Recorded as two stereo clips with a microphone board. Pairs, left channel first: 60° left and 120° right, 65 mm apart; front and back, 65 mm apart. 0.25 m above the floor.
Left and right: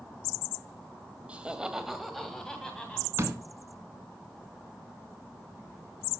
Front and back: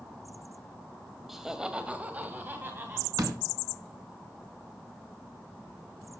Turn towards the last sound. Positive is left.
turn(degrees=-165)